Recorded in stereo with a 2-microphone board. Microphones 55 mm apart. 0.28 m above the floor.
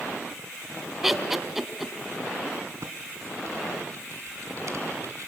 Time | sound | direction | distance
1.0 | laughter | 5° right (ahead or behind) | 1.8 m
2.8 | typing on a keyboard | 60° right (ahead or behind) | 2.5 m